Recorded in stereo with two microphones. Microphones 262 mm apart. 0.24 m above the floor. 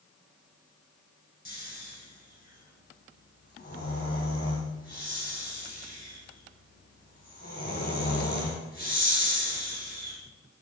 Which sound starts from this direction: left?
Snoring, at 1.4 s.